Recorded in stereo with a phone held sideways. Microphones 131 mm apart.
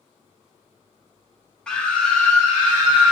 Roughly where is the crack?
I don't hear a crack.